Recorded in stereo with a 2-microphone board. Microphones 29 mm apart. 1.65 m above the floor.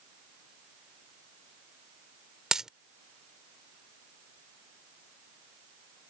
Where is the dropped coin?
20° right (ahead or behind).